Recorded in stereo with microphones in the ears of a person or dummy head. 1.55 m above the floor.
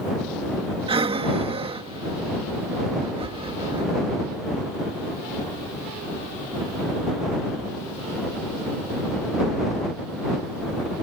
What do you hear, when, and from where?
0.9 s breathing: 25° right (ahead or behind)